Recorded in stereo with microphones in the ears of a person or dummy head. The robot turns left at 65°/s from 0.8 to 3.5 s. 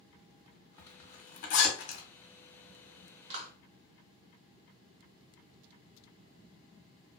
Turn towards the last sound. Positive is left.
turn(degrees=-45)  # may be behind; listen again after turning